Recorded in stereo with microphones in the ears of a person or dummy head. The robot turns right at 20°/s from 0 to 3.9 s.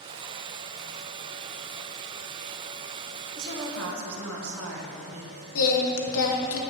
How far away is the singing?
About 0.9 m.